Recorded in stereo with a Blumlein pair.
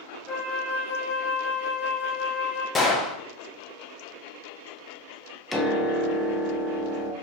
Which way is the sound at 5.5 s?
5° left.